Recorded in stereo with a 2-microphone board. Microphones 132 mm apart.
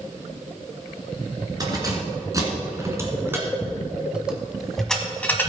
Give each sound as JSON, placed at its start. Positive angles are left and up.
{"t": 1.6, "sound": "keys jangling", "side_deg": -30, "distance_m": 2.5}